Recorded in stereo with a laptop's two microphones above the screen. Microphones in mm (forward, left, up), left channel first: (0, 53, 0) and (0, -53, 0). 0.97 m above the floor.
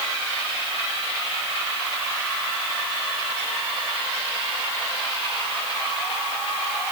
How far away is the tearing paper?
No tearing paper in this recording.